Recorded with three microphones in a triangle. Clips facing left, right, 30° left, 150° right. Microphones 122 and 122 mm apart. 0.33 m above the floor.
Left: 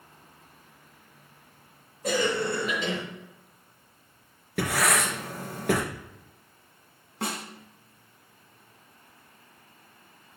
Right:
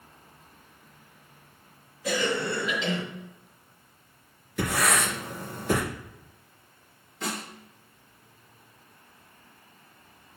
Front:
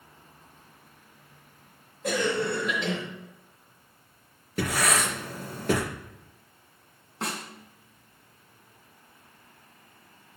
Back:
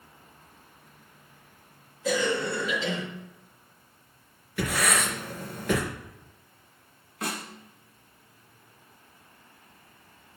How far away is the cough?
About 3.5 m.